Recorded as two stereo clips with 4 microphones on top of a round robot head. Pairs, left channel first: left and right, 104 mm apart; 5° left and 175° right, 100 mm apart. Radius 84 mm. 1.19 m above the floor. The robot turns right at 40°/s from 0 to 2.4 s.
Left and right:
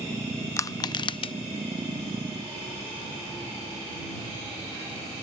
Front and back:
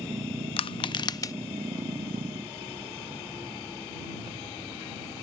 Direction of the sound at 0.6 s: 30° left.